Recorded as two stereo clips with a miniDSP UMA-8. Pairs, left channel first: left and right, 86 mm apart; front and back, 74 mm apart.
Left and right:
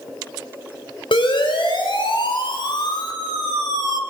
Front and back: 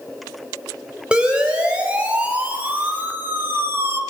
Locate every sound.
1.1 s a siren: 100° left, 6 m; by 4.0 s 130° left, 3 m